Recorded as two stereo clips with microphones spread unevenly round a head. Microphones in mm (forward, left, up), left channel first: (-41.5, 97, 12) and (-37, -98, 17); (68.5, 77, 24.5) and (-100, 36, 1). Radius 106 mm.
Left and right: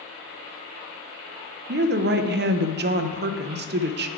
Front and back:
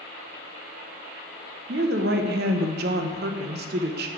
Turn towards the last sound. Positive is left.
turn(degrees=-125)